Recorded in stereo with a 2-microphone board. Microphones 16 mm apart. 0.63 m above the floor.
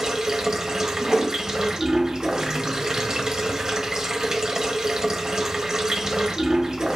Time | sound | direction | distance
0.0 | running water | 45° right (ahead or behind) | 1.0 m
1.0 | a whoosh | 55° right (ahead or behind) | 3 m